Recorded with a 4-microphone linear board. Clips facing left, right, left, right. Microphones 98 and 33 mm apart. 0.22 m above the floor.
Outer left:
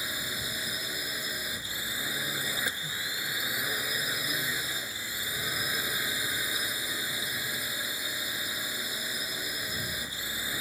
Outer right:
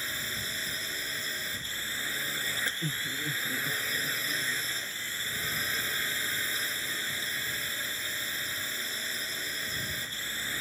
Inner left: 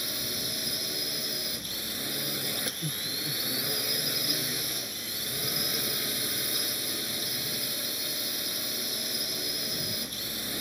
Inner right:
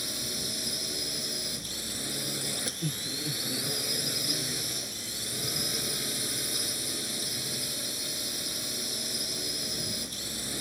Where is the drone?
15° left (ahead or behind).